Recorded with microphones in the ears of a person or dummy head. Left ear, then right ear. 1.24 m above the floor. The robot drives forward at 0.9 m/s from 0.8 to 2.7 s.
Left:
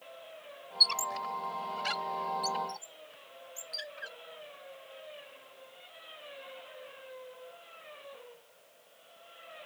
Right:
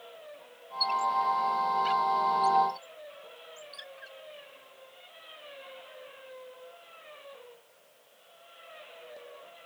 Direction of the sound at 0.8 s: 60° left (ahead or behind).